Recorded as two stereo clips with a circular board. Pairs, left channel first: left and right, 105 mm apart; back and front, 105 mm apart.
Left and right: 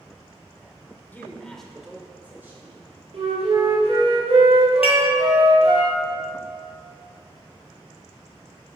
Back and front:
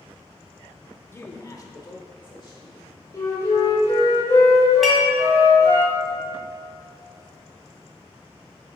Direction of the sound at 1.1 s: 140° left.